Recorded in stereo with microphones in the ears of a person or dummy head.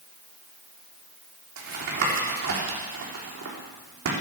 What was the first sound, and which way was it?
Tapping, 70° right (ahead or behind).